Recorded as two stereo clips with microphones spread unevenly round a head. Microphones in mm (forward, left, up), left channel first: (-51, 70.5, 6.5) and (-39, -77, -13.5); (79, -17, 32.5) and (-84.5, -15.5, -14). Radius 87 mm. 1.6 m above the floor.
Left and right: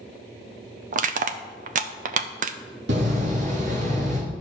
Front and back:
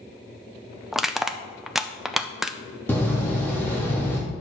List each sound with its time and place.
0.9 s crushing: 75° right, 0.5 m
2.9 s a door slam: 75° right, 2.5 m